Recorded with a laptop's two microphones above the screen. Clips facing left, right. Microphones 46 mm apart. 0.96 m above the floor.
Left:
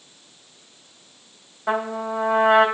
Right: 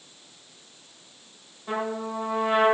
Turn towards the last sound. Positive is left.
turn(degrees=80)